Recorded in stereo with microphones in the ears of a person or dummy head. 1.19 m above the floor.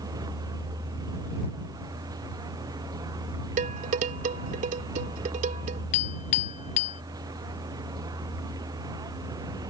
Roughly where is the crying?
No crying in this recording.